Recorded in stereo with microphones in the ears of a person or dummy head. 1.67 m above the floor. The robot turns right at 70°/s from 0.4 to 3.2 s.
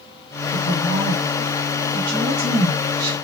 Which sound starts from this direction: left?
A woman speaking, at 0.5 s.